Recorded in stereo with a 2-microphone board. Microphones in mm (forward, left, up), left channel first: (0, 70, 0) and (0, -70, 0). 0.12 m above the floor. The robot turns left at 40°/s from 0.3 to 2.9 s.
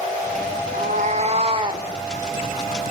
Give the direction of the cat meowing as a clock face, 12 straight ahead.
4 o'clock.